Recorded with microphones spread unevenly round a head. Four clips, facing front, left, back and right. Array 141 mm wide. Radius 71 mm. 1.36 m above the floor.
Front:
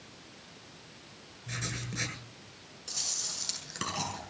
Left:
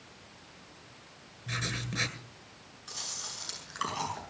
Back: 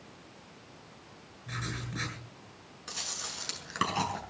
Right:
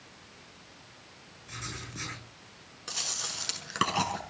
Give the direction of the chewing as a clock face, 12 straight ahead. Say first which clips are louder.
Right 5 dB, back 5 dB; 3 o'clock.